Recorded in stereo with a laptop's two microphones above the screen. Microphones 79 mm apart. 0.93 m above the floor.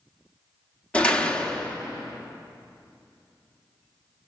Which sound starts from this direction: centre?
A door slam, at 0.9 s.